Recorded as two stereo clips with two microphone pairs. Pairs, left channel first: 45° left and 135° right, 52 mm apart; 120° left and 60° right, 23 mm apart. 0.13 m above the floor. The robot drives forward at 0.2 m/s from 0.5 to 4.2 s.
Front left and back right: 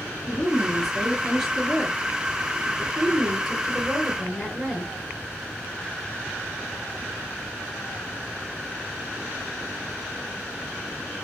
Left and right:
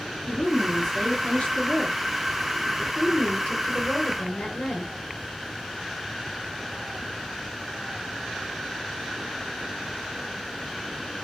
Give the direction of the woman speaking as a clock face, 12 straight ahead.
7 o'clock.